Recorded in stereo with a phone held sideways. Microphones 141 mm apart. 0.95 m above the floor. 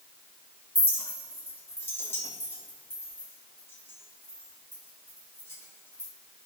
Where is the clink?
15° left (ahead or behind), 2.5 m.